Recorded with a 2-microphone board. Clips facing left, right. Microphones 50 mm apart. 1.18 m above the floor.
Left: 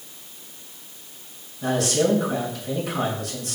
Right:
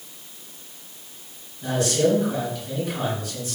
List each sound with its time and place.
1.6 s a man speaking: 75° left (ahead or behind), 6.5 m